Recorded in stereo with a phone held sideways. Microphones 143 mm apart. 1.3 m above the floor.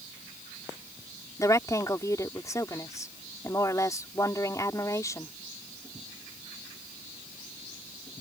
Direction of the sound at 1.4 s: 20° left (ahead or behind).